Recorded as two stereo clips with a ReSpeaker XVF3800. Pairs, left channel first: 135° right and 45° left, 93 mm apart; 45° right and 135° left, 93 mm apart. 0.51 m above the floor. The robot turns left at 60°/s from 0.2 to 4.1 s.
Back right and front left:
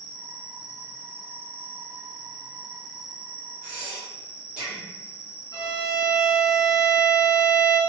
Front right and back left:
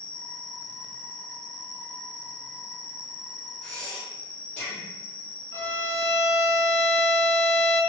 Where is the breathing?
25° left, 1.4 m; by 4.9 s straight ahead, 1.4 m.